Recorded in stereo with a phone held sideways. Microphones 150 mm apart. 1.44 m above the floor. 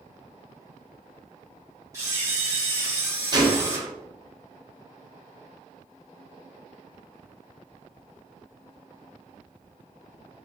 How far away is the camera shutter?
About 1.9 m.